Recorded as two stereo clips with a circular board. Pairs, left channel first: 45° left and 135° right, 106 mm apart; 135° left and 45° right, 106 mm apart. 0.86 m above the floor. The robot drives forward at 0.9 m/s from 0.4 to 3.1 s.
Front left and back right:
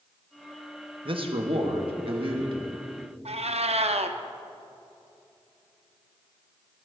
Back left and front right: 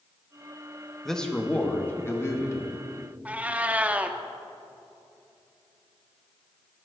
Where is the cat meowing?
120° right, 0.6 m.